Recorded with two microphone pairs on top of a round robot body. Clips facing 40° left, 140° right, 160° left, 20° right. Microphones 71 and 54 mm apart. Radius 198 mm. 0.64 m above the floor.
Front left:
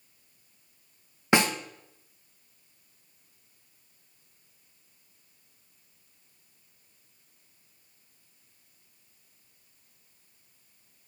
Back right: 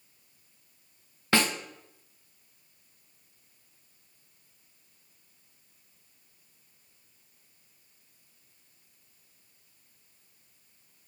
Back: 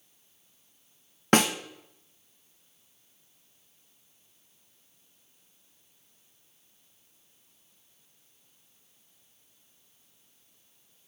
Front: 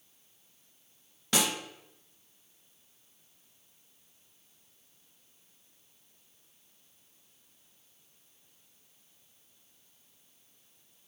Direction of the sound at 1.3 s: 115° left.